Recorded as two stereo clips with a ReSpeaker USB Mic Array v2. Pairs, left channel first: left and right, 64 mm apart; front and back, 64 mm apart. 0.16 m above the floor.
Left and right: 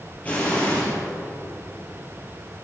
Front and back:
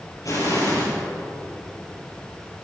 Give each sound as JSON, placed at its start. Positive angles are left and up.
{"t": 0.2, "sound": "an explosion", "azimuth_deg": 20, "distance_m": 4.0}